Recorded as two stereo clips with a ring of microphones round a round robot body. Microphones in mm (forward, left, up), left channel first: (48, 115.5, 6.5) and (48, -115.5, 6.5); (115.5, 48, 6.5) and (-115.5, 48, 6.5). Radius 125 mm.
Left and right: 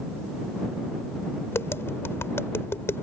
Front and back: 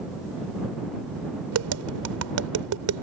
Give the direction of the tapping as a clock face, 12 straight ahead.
6 o'clock.